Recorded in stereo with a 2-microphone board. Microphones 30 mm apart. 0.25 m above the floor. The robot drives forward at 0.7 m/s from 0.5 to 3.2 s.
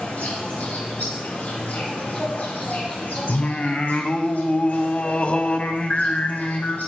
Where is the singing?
45° left (ahead or behind), 0.7 m.